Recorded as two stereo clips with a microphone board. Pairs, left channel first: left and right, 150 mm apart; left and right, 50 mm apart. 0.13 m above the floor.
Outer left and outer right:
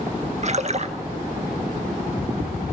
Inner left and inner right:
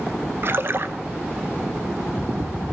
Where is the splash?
50° right (ahead or behind), 0.8 m.